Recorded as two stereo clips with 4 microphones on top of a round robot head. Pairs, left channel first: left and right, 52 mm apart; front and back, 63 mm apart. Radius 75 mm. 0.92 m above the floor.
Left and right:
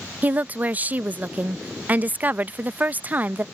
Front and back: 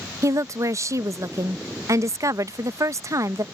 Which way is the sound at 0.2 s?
145° right.